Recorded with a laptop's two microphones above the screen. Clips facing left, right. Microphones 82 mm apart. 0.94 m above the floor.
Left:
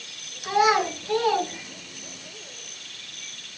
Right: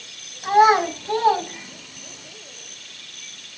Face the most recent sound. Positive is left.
turn(degrees=-25)  # may be behind; listen again after turning